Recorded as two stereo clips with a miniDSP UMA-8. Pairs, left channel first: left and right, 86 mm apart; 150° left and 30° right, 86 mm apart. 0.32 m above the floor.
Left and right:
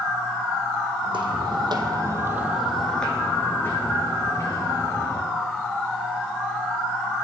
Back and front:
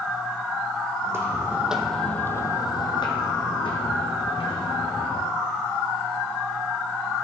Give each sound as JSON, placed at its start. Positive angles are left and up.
{"t": 1.0, "sound": "footsteps", "azimuth_deg": -85, "distance_m": 1.1}